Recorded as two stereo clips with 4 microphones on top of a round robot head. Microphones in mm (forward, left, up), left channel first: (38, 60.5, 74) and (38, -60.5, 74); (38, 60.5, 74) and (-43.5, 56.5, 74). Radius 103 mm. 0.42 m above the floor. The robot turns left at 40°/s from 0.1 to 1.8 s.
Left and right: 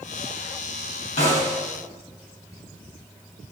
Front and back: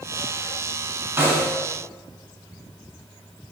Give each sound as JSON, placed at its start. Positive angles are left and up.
{"t": 1.2, "sound": "a snare drum", "azimuth_deg": 125, "distance_m": 4.5}